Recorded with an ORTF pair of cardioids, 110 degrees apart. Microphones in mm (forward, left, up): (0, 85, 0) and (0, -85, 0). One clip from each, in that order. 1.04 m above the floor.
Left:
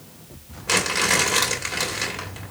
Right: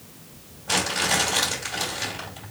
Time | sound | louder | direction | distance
0.7 | crumpling | left 3 dB | 70° left | 2.5 m